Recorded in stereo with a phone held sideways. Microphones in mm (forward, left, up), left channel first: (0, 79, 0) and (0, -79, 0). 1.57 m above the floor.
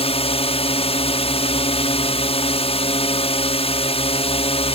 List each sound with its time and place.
0.0 s a drone: 40° left (ahead or behind)